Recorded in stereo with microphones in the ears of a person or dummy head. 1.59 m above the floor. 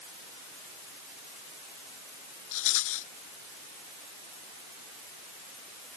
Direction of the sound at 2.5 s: 75° left (ahead or behind).